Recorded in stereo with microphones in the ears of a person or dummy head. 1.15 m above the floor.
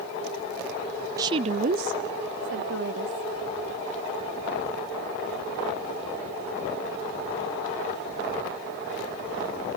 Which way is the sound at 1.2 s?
20° right (ahead or behind).